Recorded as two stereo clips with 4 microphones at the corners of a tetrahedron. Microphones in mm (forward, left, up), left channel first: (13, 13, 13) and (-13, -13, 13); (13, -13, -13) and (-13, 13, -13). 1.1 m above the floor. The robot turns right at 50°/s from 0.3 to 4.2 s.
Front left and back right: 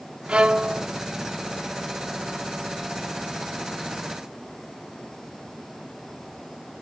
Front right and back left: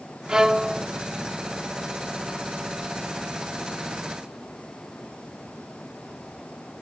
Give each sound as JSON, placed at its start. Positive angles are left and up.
{"t": 0.3, "sound": "a violin", "azimuth_deg": -175}